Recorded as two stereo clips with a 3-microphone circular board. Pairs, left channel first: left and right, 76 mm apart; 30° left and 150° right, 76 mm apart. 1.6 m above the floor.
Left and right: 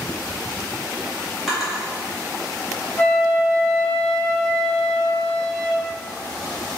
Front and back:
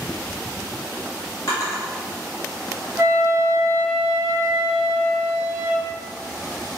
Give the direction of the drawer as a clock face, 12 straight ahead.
12 o'clock.